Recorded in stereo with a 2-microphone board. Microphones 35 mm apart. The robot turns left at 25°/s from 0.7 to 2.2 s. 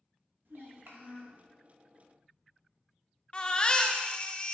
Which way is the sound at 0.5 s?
75° right (ahead or behind).